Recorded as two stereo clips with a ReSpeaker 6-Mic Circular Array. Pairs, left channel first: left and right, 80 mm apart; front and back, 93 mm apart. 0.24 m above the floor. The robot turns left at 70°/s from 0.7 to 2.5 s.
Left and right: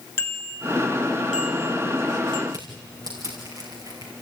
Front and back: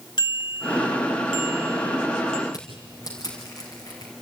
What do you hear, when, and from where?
0.2 s a bicycle bell: 30° left, 2.5 m; by 2.4 s 85° right, 2.5 m
2.5 s crushing: 50° right, 5 m